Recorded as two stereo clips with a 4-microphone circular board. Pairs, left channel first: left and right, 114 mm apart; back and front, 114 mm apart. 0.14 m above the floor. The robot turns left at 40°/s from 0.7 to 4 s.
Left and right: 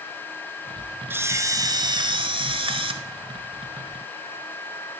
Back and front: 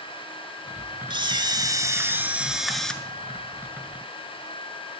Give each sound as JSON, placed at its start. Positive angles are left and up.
{"t": 1.1, "sound": "a camera shutter", "azimuth_deg": -25, "distance_m": 1.0}